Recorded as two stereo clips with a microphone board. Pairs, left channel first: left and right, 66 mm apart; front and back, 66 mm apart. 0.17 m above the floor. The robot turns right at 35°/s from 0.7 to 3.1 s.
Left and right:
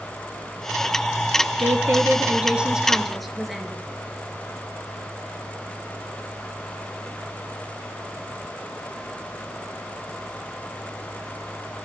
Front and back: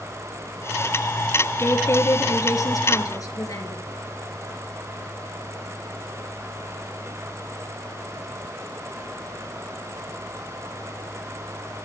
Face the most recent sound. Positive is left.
turn(degrees=0)